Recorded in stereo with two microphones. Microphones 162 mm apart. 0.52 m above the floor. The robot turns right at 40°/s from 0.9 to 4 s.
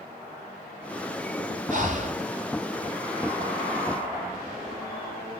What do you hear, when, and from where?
1.7 s breathing: 50° right (ahead or behind), 1.5 m; by 2.2 s 45° right (ahead or behind), 1.5 m